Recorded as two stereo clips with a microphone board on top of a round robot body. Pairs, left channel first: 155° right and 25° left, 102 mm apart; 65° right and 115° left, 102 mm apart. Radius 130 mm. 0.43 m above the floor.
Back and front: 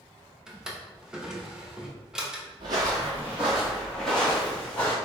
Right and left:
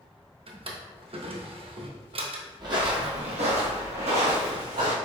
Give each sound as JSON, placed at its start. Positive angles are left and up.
{"t": 0.5, "sound": "a drawer", "azimuth_deg": 105, "distance_m": 0.9}
{"t": 2.6, "sound": "footsteps", "azimuth_deg": 65, "distance_m": 0.7}